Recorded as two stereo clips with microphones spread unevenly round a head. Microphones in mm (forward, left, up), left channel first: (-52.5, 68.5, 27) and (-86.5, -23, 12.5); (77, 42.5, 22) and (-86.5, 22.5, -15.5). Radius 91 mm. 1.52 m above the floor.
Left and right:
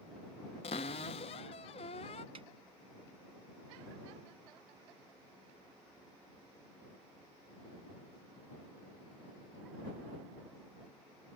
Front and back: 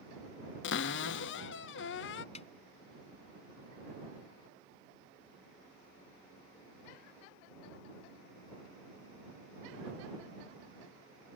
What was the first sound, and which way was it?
A cupboard door, 25° left.